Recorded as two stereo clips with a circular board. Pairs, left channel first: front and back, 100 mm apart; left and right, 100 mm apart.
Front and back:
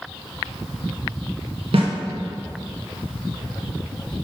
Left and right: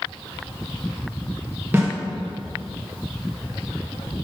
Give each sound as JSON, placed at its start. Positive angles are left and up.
{"t": 1.7, "sound": "a snare drum", "azimuth_deg": -160, "distance_m": 1.8}